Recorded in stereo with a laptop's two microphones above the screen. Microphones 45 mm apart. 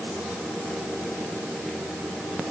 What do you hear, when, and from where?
Only background noise.